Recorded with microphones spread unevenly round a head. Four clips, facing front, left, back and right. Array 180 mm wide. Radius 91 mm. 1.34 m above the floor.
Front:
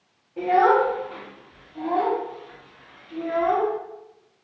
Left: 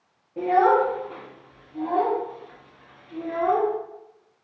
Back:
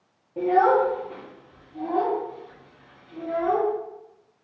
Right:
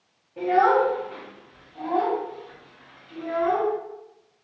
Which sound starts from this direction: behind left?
A child speaking, at 0.4 s.